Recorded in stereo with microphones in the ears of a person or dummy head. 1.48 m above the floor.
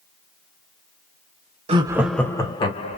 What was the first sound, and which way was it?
Laughter, 30° right (ahead or behind).